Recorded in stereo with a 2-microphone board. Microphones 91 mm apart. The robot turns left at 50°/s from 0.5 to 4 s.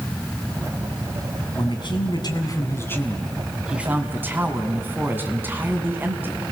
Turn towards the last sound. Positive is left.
turn(degrees=-25)